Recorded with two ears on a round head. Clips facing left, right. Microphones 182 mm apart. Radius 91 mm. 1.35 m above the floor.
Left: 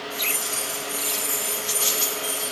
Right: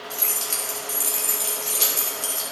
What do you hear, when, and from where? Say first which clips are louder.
0.1 s keys jangling: left 2 dB; 55° right (ahead or behind), 2.0 m